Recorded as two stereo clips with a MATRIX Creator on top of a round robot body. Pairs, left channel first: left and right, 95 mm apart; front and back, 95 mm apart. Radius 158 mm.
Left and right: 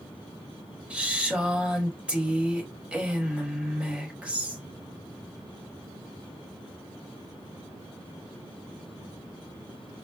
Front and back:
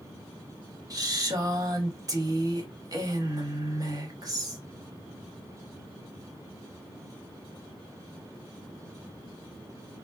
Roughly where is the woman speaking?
Behind.